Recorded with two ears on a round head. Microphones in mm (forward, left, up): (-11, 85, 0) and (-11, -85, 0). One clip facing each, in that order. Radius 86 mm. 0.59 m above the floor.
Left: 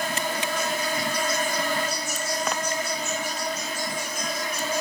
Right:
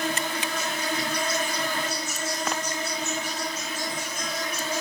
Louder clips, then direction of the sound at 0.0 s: Left 1 dB; 10° left (ahead or behind).